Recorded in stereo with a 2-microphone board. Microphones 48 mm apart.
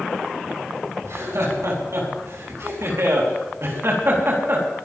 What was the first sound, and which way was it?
Laughter, 75° right (ahead or behind).